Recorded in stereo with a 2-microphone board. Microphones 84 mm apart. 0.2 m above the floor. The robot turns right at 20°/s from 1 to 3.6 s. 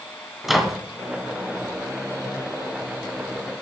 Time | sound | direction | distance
0.4 | a microwave | 5° right (ahead or behind) | 1.4 m